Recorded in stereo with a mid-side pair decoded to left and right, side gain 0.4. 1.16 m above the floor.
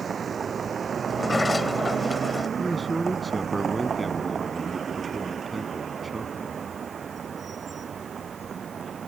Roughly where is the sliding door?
Ahead left.